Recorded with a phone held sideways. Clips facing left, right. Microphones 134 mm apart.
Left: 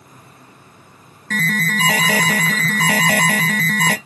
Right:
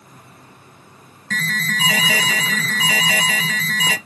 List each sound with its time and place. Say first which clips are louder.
1.3 s an alarm: left 5 dB; 55° left (ahead or behind), 0.7 m